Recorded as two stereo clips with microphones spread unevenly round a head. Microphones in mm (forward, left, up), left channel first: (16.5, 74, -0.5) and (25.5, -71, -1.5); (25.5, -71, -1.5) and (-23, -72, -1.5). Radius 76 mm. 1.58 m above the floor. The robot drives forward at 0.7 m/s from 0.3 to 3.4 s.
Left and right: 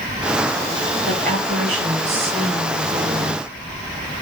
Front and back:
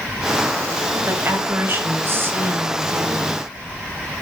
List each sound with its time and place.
1.1 s a woman speaking: 130° right, 4.5 m; by 3.4 s 145° right, 5.5 m